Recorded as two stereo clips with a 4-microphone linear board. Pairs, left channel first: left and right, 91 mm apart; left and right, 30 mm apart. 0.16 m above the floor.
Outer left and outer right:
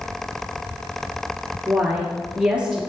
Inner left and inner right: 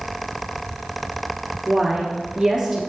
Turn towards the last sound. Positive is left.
turn(degrees=-10)  # may be behind; listen again after turning